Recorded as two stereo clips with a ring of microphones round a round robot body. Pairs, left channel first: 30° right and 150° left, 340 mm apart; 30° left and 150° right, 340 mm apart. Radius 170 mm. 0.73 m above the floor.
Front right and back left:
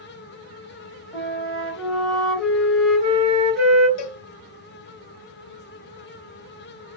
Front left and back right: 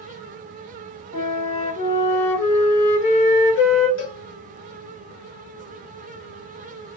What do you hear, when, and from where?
1.1 s a flute: 60° left, 1.4 m
4.0 s a cowbell: 15° right, 0.6 m